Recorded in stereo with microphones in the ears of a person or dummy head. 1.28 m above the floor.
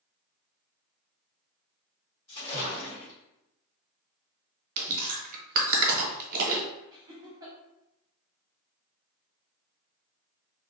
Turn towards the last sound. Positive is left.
turn(degrees=-20)  # may be behind; listen again after turning